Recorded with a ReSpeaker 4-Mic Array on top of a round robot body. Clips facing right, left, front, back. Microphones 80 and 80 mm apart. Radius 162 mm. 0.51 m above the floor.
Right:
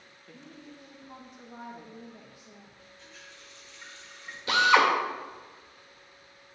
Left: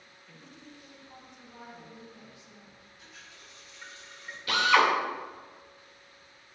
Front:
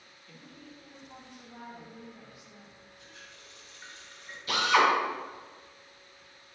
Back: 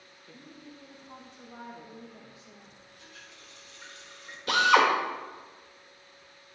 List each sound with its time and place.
0.3 s a woman speaking: 125° right, 1.8 m
3.0 s a running tap: 170° left, 4.5 m
4.5 s a drill: 155° right, 2.5 m